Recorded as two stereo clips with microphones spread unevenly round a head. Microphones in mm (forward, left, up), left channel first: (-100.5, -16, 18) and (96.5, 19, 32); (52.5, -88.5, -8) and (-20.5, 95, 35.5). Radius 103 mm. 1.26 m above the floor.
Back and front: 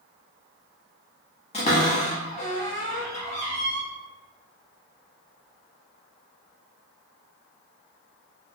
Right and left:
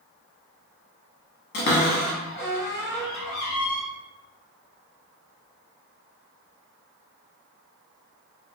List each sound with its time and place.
1.5 s a cupboard door: 110° right, 0.8 m